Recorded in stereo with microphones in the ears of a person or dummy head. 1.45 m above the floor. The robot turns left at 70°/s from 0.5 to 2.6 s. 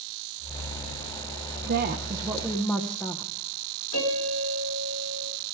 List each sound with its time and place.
1.7 s a woman speaking: 125° right, 1.3 m; by 3.3 s 170° left, 1.3 m
3.9 s a piano: 85° left, 4.5 m